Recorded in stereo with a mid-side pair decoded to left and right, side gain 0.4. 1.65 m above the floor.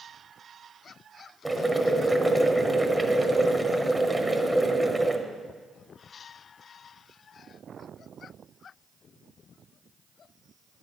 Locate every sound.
1.4 s boiling: 10° right, 1.1 m